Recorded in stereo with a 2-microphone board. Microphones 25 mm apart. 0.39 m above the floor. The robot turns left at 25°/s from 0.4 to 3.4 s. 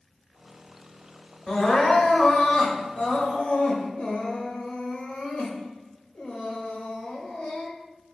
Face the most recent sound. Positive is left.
turn(degrees=85)